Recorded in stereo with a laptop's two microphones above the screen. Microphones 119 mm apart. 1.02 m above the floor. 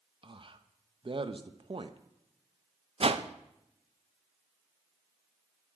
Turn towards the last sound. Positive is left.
turn(degrees=-55)  # may be behind; listen again after turning